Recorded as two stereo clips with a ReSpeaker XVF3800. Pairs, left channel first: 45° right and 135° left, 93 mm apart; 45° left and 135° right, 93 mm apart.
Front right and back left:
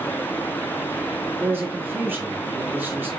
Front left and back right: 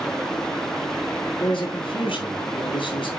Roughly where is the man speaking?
Ahead left.